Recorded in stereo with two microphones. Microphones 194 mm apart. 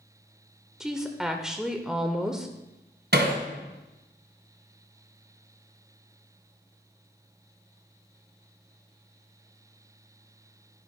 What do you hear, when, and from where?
0.8 s a woman speaking: 5° right (ahead or behind), 0.8 m
3.1 s hammering: 70° right (ahead or behind), 1.7 m